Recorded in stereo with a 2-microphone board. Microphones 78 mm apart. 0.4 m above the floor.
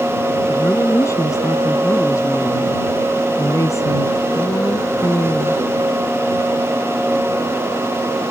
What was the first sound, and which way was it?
A woman speaking, 45° left (ahead or behind).